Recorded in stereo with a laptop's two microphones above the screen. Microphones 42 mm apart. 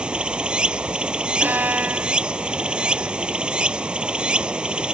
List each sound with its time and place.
0.0 s running water: 25° right (ahead or behind)
1.4 s a violin: 45° right (ahead or behind)